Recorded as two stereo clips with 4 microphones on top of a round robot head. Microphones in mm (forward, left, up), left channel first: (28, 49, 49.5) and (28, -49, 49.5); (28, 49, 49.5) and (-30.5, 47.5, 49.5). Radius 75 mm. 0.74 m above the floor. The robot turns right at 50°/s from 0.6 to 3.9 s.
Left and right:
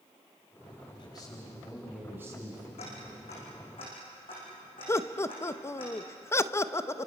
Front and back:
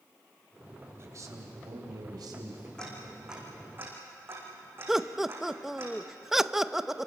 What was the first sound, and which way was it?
A man speaking, 135° left.